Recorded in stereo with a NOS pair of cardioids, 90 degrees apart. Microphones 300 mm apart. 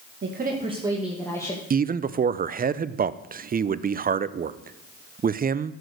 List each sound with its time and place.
0.2 s a woman speaking: 40° right, 1.9 m; by 1.6 s 15° left, 2 m
1.7 s a man speaking: 30° right, 0.6 m